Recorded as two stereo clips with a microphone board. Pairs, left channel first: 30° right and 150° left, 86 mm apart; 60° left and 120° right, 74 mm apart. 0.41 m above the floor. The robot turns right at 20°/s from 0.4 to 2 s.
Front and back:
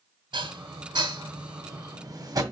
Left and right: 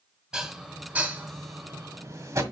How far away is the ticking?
No ticking in this recording.